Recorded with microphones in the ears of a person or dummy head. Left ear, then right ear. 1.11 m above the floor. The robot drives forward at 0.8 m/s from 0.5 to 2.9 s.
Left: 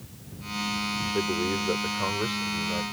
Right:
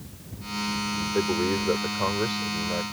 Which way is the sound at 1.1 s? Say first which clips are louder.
Right 4 dB; 10° right (ahead or behind).